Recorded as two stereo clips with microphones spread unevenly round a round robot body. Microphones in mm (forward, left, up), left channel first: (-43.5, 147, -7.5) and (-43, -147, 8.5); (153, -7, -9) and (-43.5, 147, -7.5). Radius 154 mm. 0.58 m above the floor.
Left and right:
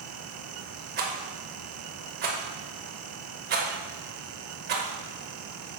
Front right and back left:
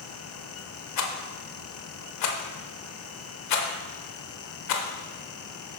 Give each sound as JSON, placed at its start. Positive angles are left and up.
{"t": 1.0, "sound": "a rattle", "azimuth_deg": -30, "distance_m": 0.7}